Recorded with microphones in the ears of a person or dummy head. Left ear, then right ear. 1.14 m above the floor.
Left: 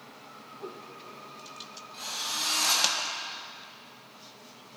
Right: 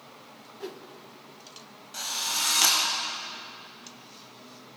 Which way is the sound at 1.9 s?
55° right (ahead or behind).